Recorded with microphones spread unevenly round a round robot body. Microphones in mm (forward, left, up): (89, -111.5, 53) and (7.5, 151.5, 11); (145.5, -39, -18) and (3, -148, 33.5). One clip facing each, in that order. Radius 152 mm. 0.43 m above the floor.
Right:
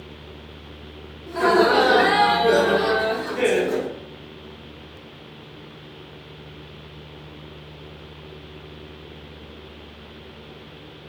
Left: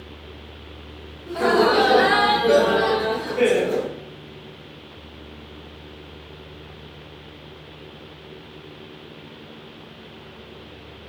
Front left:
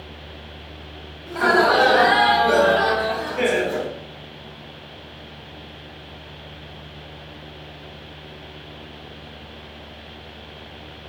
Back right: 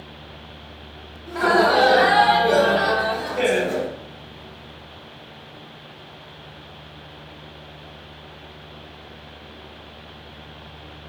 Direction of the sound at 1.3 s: 25° left.